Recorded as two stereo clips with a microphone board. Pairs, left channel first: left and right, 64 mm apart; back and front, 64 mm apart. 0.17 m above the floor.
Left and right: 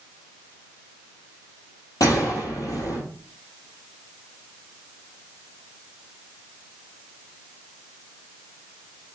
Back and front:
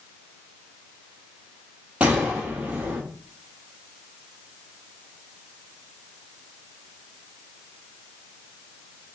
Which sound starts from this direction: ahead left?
A gunshot, at 2.0 s.